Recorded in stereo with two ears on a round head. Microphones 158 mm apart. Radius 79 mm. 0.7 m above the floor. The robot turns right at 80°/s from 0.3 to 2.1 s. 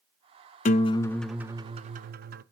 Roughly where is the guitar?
Behind left.